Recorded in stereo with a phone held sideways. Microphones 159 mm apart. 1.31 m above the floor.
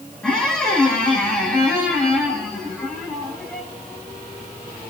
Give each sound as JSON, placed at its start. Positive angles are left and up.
{"t": 0.2, "sound": "a squeak", "side_deg": 5, "distance_m": 3.5}